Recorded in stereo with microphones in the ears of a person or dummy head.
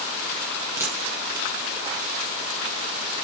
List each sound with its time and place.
0.8 s a dropped coin: 10° right (ahead or behind), 1.7 m